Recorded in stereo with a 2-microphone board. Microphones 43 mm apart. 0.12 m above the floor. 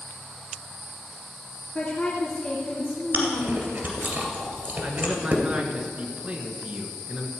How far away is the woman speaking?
About 1.9 m.